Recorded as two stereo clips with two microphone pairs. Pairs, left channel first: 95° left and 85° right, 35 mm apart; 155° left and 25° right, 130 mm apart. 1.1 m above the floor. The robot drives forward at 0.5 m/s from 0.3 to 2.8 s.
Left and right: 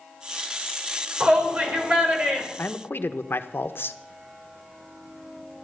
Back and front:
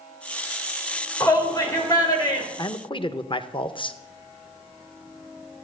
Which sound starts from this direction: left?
A man speaking, at 2.6 s.